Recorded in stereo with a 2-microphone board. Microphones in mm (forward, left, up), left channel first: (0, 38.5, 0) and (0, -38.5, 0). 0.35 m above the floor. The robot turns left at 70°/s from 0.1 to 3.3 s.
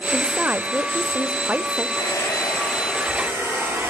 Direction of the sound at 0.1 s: 10° right (ahead or behind).